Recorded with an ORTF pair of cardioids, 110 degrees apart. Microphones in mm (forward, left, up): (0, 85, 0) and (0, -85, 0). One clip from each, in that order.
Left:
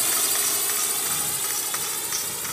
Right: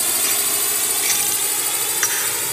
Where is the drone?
25° right; by 2.5 s 50° right.